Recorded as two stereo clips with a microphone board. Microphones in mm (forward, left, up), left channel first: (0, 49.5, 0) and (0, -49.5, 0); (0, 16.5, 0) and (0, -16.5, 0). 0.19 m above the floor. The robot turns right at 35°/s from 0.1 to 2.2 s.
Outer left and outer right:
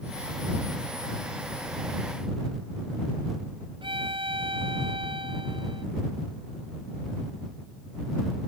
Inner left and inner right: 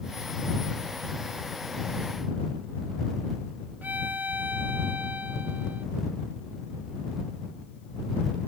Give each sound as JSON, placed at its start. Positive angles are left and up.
{"t": 3.8, "sound": "a violin", "side_deg": -60}